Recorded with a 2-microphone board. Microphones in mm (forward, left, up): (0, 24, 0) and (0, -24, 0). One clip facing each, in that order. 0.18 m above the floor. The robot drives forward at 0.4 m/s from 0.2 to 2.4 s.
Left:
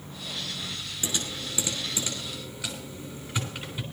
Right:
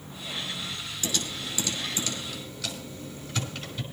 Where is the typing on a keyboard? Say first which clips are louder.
Right 1 dB; 25° left (ahead or behind), 3 m; by 3.8 s 20° left (ahead or behind), 3.5 m.